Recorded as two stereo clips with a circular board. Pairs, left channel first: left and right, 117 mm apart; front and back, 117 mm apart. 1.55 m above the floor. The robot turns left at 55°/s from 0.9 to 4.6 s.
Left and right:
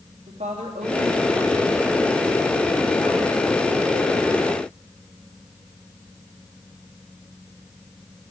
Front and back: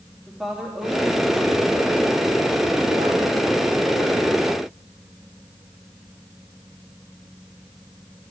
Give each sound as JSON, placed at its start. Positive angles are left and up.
{"t": 0.3, "sound": "a woman speaking", "azimuth_deg": -90, "distance_m": 3.5}